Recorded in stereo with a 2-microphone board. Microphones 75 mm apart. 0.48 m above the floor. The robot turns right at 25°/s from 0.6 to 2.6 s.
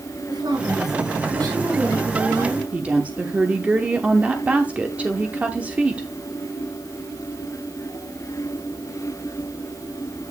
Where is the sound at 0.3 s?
105° right, 4 m; by 2.6 s 55° right, 4 m.